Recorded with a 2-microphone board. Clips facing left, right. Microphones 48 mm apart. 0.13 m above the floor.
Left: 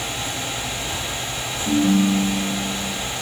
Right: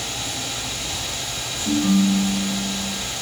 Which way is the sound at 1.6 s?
5° right (ahead or behind).